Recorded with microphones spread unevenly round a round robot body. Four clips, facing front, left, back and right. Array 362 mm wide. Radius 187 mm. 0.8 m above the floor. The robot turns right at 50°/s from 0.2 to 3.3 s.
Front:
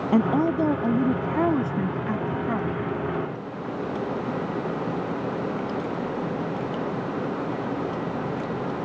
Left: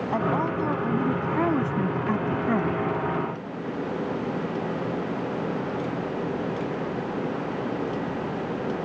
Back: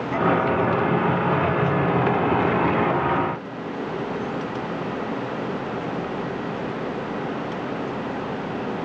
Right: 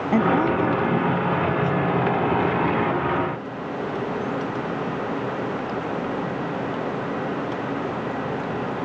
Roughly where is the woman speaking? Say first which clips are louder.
Right 7 dB, back 1 dB; ahead right.